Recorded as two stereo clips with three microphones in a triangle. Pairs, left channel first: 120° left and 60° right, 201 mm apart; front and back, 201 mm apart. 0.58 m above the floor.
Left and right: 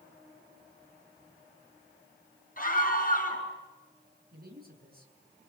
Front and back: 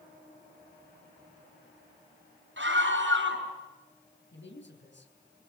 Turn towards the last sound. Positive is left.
turn(degrees=-20)